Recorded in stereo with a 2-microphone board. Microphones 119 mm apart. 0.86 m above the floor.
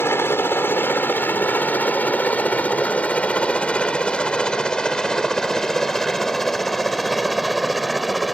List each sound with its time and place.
0.0 s a helicopter: 20° left (ahead or behind); by 8.3 s centre (ahead or behind)